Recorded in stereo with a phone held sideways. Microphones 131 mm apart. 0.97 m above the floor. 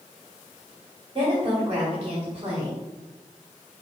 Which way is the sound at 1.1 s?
35° right (ahead or behind).